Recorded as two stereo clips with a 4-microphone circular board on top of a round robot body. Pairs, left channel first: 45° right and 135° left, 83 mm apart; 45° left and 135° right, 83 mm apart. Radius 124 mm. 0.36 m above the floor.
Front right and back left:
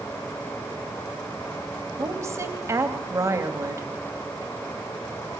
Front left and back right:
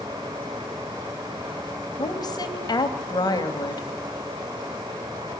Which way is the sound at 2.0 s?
80° left.